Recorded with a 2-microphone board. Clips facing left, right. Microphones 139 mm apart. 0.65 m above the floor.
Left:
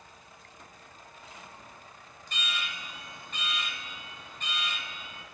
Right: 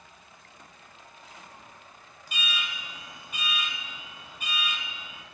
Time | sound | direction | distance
2.3 | an alarm | 10° right (ahead or behind) | 1.1 m